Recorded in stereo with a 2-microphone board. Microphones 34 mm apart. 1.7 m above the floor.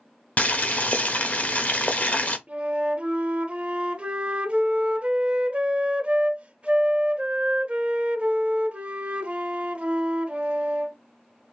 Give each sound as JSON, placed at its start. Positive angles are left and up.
{"t": 0.4, "sound": "boiling", "side_deg": 50, "distance_m": 0.7}
{"t": 2.5, "sound": "a flute", "side_deg": -35, "distance_m": 0.6}